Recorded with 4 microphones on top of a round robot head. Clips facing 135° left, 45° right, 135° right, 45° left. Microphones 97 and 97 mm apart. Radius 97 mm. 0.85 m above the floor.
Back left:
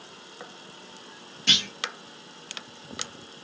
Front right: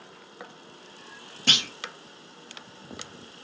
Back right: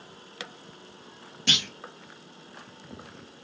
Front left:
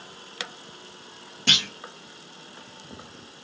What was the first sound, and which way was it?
A clunk, straight ahead.